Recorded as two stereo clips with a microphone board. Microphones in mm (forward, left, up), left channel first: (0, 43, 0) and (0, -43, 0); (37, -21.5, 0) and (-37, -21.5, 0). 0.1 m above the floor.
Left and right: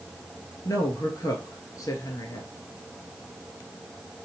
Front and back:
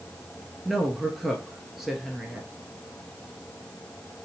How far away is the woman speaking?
About 1.3 m.